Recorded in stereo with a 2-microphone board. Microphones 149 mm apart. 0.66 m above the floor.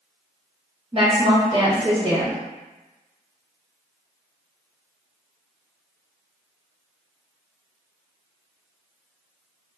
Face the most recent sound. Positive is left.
turn(degrees=-40)  # may be behind; listen again after turning